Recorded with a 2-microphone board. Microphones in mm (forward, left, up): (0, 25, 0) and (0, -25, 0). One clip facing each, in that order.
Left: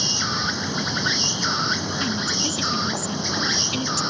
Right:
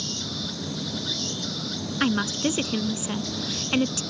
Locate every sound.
0.0 s an insect: 60° left (ahead or behind)
2.0 s a woman speaking: 35° right (ahead or behind)